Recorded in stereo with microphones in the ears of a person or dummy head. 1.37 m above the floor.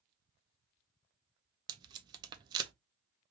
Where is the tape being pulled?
25° right (ahead or behind), 0.6 m.